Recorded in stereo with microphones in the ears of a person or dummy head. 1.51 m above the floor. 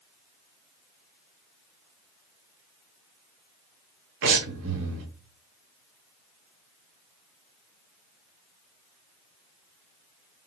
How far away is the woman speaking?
I don't hear a woman speaking.